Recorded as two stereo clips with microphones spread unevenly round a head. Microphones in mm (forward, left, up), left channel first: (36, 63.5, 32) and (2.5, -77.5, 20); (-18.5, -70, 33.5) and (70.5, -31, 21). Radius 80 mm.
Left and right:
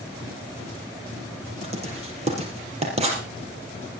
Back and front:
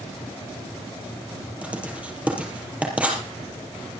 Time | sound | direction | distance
1.6 | writing | 55° right | 4 m